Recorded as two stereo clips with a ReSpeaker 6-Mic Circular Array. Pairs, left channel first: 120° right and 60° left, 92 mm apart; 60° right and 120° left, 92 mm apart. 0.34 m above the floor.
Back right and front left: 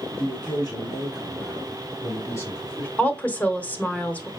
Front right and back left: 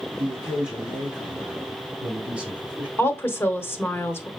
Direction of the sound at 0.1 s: 155° right.